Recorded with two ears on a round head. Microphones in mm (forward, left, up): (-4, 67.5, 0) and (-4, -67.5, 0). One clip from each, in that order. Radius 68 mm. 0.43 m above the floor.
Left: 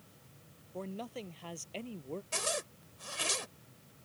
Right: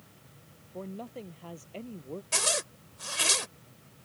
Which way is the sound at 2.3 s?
30° right (ahead or behind).